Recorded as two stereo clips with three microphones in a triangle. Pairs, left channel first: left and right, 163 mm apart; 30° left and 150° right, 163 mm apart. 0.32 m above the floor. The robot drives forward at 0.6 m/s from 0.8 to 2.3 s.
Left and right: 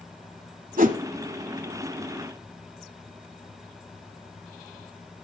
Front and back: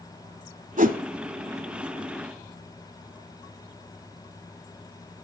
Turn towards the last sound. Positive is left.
turn(degrees=-145)